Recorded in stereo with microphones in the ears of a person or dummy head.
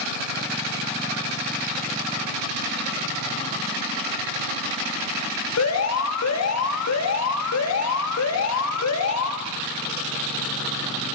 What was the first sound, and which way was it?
An alarm, 75° left (ahead or behind).